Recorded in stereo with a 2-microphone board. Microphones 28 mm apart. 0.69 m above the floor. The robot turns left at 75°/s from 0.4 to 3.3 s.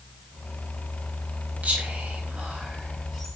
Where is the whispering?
65° right (ahead or behind), 4 m; by 3.4 s 15° left (ahead or behind), 4 m.